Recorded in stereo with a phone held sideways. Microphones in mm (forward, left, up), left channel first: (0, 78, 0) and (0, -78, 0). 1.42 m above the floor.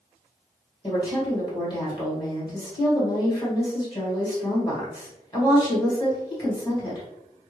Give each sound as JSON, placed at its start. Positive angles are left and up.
{"t": 0.8, "sound": "a woman speaking", "side_deg": 25, "distance_m": 1.8}